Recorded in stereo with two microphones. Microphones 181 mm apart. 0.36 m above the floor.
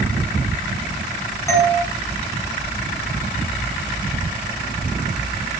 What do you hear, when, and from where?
1.5 s a doorbell: 15° left (ahead or behind), 4.5 m